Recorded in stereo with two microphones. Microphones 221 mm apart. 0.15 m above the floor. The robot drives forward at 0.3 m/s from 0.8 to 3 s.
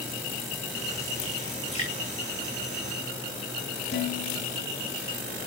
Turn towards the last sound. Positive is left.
turn(degrees=50)  # may be behind; listen again after turning